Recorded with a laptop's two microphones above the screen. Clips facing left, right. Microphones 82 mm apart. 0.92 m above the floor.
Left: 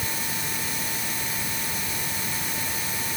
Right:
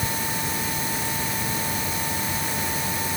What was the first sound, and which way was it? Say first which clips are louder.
A machine running: right 4 dB; 25° right (ahead or behind).